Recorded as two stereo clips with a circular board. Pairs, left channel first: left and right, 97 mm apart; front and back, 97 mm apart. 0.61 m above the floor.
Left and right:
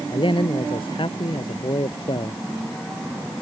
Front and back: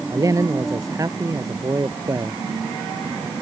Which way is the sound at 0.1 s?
125° left.